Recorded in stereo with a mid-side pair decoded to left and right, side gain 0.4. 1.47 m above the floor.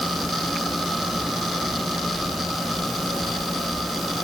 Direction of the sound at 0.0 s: 5° right.